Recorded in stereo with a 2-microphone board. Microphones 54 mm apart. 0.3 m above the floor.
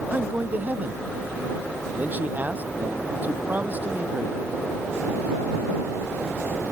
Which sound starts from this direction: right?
A man speaking, at 0.1 s.